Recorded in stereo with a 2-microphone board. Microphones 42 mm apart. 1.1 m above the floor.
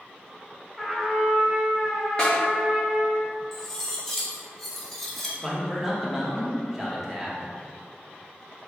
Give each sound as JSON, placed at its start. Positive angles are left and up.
{"t": 0.8, "sound": "a trumpet", "side_deg": -10, "distance_m": 0.9}
{"t": 2.2, "sound": "a snare drum", "side_deg": 20, "distance_m": 1.3}
{"t": 3.5, "sound": "cutlery clinking", "side_deg": 5, "distance_m": 0.8}
{"t": 5.4, "sound": "a man speaking", "side_deg": -5, "distance_m": 1.0}